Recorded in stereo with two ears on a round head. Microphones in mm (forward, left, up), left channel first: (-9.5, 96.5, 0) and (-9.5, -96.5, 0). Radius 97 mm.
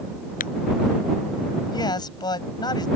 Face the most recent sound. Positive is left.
turn(degrees=20)  # may be behind; listen again after turning